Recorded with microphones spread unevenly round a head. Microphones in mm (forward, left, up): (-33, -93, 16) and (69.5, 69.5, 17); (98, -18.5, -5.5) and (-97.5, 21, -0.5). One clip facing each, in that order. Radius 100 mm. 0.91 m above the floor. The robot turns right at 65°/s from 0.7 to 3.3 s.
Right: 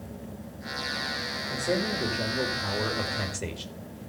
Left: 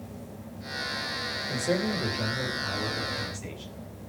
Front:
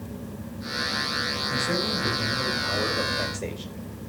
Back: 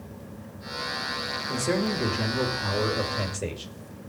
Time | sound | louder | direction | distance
1.5 | a man speaking | left 1 dB, back 3 dB | 130° left | 3 m